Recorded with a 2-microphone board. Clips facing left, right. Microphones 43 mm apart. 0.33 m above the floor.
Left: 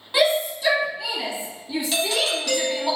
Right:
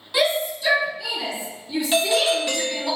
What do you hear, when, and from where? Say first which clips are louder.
0.1 s a shout: left 1 dB; 25° left (ahead or behind), 2 m
1.9 s a doorbell: right 5 dB; 20° right (ahead or behind), 1.4 m